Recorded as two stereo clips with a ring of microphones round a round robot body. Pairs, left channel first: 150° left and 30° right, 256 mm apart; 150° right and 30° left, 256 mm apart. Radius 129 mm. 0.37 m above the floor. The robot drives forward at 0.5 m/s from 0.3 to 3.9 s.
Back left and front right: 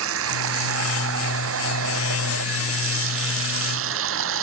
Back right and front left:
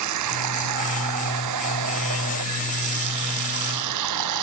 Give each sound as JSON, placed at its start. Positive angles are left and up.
{"t": 0.0, "sound": "running water", "azimuth_deg": 10}